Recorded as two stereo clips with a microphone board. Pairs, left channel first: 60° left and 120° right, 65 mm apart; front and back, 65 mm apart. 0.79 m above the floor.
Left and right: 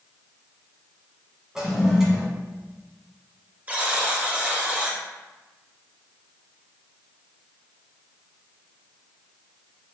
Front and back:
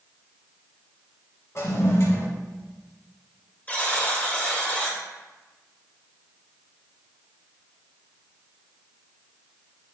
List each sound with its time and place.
1.6 s a toilet flushing: 35° right, 1.1 m
3.7 s a buzzer: 60° right, 1.0 m